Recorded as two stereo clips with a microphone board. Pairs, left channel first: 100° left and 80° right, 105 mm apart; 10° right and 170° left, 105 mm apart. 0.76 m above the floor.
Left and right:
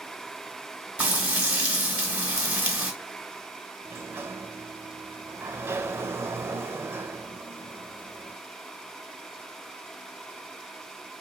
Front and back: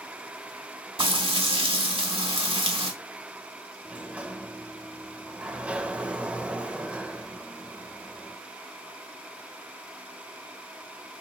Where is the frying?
155° right, 1.5 m.